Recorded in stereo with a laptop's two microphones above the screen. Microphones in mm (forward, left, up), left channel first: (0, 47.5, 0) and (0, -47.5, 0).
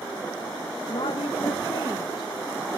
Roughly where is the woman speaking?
Left.